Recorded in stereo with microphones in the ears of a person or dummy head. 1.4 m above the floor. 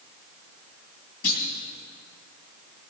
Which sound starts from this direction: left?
A clunk, at 1.2 s.